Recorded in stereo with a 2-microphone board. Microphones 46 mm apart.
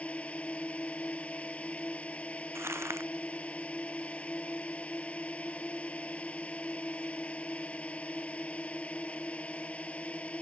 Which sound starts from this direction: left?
A drone, at 0.0 s.